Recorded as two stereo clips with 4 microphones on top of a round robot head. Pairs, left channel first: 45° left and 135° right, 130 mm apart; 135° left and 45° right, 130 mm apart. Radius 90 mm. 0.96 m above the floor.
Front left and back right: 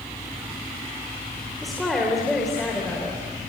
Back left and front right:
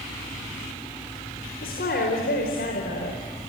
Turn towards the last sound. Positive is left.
turn(degrees=130)